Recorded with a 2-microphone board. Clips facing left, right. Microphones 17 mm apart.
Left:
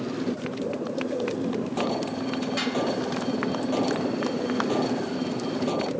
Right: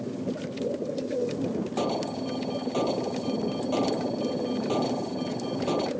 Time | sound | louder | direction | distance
0.0 | a motorcycle | left 3 dB | 85° left | ?
1.8 | an alarm | left 1 dB | 5° right (ahead or behind) | ?